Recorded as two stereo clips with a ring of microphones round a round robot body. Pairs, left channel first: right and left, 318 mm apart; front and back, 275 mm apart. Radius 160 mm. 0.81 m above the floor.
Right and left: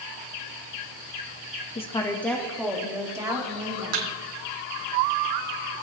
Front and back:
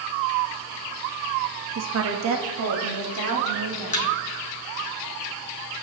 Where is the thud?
65° left, 2.5 m.